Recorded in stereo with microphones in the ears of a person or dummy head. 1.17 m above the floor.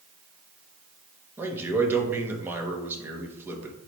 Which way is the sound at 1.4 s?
15° right (ahead or behind).